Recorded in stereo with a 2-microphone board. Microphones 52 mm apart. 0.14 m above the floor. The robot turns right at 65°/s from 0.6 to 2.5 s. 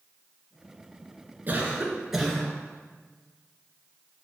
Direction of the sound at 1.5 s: 55° right.